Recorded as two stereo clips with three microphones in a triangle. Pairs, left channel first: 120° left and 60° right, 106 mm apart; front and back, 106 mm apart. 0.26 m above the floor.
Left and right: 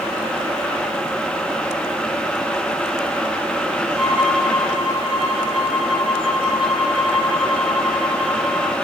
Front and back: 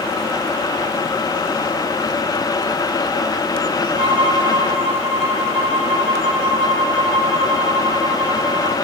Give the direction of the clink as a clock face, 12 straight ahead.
No clink in this recording.